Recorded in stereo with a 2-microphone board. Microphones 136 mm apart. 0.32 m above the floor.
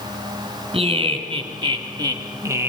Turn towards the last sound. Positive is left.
turn(degrees=-15)  # may be behind; listen again after turning